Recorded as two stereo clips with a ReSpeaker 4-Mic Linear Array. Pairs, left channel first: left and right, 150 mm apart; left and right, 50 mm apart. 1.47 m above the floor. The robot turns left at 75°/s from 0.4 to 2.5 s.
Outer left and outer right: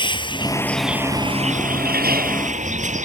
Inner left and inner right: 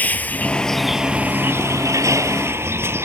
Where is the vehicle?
30° left; by 3.1 s 125° right.